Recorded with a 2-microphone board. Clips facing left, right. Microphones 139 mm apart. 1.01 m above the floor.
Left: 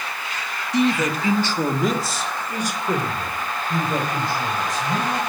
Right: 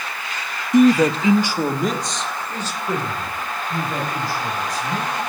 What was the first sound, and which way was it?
A man speaking, 50° right (ahead or behind).